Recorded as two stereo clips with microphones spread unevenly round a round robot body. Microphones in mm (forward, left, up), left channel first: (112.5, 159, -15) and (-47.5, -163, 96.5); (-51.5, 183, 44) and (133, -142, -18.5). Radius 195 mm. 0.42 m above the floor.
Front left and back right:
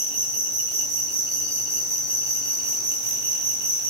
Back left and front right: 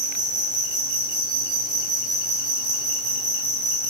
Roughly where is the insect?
Right.